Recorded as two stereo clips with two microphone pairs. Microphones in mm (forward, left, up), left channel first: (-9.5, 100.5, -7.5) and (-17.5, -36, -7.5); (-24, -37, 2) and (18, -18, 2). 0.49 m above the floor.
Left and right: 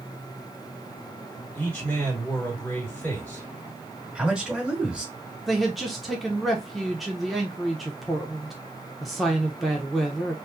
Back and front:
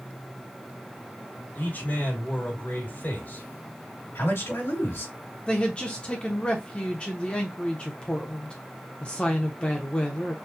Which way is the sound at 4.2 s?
175° right.